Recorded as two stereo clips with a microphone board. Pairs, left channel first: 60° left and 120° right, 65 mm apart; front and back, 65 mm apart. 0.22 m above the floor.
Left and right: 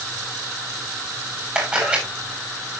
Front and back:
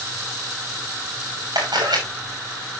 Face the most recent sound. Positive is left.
turn(degrees=160)